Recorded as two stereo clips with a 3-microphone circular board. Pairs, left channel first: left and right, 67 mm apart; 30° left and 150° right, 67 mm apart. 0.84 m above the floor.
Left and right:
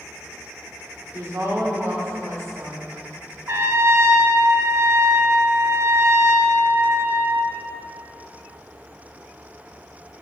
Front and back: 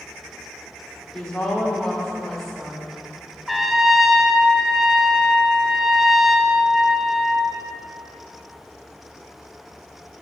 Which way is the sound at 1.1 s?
50° right.